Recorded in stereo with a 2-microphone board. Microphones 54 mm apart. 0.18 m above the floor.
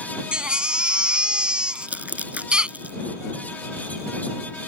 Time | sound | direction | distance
0.3 | a baby crying | 20° right (ahead or behind) | ?
1.8 | crumpling | 30° right (ahead or behind) | ?